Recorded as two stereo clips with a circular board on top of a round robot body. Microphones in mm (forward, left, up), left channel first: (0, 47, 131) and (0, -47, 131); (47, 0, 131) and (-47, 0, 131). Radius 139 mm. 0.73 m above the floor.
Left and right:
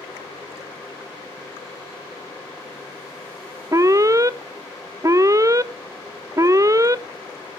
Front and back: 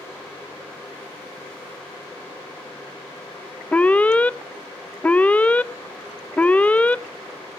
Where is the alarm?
65° right, 1.0 m.